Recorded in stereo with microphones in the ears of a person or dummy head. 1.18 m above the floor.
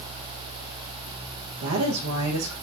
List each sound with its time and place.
1.6 s a woman speaking: 75° right (ahead or behind), 0.5 m